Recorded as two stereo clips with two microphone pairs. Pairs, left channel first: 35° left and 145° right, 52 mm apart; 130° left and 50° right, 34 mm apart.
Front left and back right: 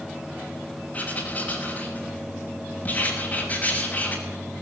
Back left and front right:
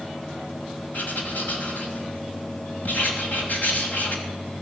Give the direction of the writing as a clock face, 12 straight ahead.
9 o'clock.